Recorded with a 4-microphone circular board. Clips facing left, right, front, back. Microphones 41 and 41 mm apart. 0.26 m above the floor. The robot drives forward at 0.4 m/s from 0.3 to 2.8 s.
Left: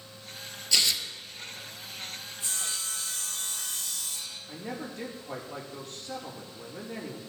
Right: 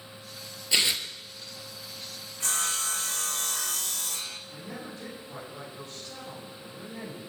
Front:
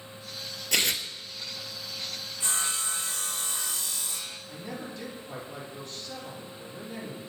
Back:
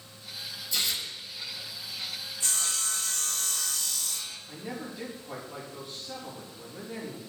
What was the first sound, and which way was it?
Tearing paper, 20° right.